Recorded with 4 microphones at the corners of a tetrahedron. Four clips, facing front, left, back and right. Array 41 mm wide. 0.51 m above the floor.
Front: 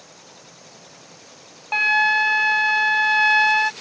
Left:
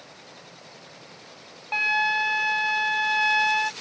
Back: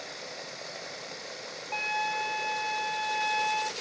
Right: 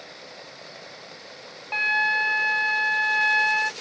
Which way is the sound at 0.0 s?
155° right.